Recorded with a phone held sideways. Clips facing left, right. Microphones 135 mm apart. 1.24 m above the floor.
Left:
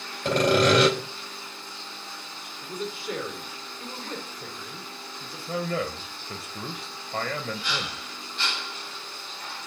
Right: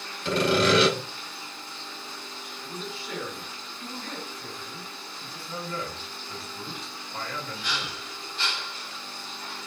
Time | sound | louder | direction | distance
0.2 | sawing | left 2 dB | 50° left (ahead or behind) | 3.5 m
2.6 | a man speaking | left 6 dB | 45° left (ahead or behind) | 3.5 m
5.5 | a man speaking | left 6 dB | 80° left | 1.0 m